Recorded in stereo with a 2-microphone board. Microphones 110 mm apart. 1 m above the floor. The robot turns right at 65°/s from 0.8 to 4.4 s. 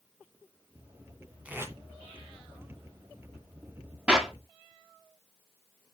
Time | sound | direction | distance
1.4 | tape being pulled | 10° right (ahead or behind) | 2 m
4.1 | a clap | 10° right (ahead or behind) | 1.7 m